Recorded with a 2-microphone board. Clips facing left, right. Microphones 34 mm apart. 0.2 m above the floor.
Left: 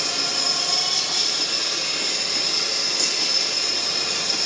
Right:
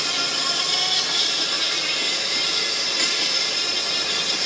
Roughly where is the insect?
Right.